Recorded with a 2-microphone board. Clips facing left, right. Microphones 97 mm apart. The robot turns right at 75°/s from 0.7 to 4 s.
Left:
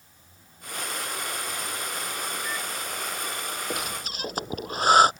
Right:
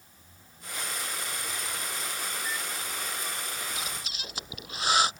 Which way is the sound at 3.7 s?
70° left (ahead or behind).